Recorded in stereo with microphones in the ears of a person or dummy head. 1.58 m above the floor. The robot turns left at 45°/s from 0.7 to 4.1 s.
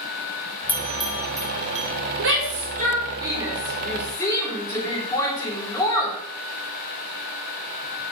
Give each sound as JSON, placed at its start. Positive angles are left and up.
{"t": 0.7, "sound": "a bell", "side_deg": 10, "distance_m": 2.5}
{"t": 2.2, "sound": "a shout", "side_deg": -65, "distance_m": 4.0}